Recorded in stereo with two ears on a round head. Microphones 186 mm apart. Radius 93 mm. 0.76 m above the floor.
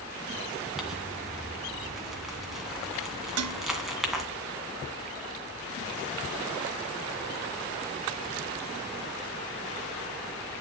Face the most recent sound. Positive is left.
turn(degrees=-75)  # may be behind; listen again after turning